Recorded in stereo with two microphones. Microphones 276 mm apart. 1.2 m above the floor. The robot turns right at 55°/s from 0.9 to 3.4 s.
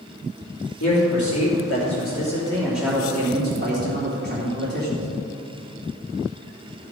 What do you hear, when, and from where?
0.8 s a man speaking: 75° left, 3 m; by 5.1 s 150° right, 3 m